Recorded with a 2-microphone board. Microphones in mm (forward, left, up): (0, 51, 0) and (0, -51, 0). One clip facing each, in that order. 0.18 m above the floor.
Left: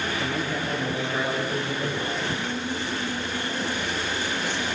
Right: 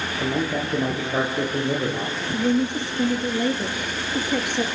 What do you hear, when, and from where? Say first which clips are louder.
0.2 s a man speaking: right 4 dB; 15° right (ahead or behind), 4 m; by 2.2 s 40° right (ahead or behind), 5 m
2.3 s a woman speaking: right 8 dB; 65° right (ahead or behind), 2.5 m